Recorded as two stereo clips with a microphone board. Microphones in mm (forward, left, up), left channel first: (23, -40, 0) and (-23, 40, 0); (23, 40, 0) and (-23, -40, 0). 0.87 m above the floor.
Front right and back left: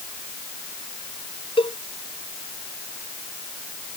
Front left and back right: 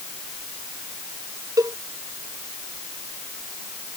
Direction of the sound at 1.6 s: 70° right.